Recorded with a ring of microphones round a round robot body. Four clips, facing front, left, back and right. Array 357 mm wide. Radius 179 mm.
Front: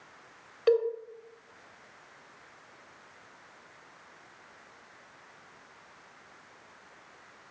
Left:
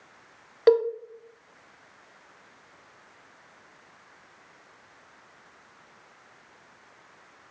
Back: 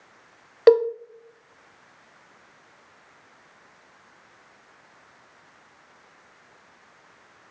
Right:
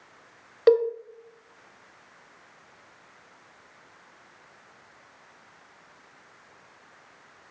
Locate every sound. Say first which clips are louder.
0.7 s a cowbell: even, back 9 dB; straight behind, 1.6 m